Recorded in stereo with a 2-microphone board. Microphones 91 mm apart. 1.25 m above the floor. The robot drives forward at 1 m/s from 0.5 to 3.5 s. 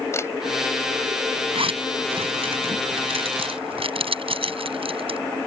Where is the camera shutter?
30° left (ahead or behind).